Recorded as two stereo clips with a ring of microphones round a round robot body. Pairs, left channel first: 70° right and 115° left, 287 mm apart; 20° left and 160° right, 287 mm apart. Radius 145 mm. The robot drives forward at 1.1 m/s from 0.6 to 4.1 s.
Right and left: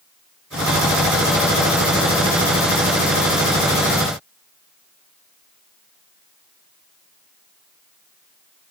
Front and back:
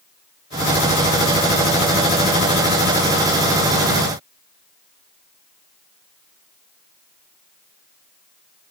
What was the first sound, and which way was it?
Only background noise.